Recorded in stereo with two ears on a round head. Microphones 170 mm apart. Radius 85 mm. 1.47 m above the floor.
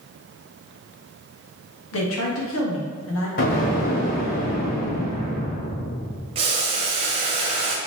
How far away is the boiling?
About 1.4 m.